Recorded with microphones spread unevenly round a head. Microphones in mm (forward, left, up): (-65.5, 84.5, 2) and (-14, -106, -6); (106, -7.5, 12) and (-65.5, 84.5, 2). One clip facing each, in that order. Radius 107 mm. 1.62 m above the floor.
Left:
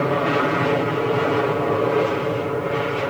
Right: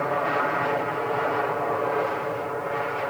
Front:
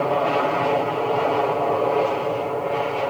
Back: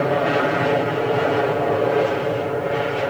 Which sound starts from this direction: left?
An aircraft, at 0.0 s.